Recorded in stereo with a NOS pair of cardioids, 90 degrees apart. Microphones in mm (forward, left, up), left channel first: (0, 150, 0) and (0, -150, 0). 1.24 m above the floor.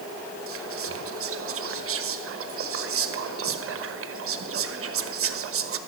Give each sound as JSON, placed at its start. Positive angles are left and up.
{"t": 0.5, "sound": "whispering", "azimuth_deg": -45, "distance_m": 1.2}